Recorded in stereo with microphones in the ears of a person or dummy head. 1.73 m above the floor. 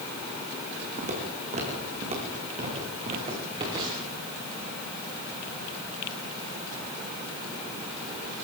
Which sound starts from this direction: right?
Footsteps, at 1.0 s.